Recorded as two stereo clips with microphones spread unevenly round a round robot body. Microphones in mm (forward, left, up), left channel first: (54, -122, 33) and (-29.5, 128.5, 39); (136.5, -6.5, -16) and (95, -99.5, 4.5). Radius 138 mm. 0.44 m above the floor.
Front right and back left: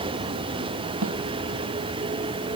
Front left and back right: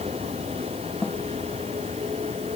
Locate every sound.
0.0 s a vehicle: straight behind
1.0 s a snare drum: 150° left